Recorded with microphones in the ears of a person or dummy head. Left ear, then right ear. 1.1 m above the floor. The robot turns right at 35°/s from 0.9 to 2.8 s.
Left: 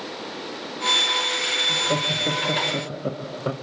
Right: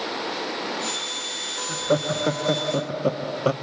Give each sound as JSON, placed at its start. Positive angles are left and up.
{"t": 1.7, "sound": "laughter", "azimuth_deg": -145, "distance_m": 1.6}